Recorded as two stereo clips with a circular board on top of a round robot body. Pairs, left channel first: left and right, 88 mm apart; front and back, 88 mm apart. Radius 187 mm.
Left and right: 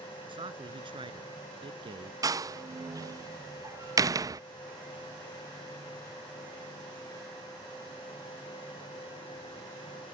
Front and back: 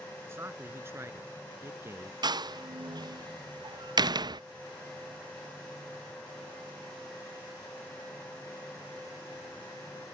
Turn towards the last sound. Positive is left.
turn(degrees=-140)